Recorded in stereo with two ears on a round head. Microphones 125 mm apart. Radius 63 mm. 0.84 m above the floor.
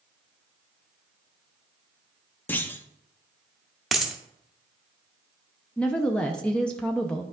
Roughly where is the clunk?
Centre.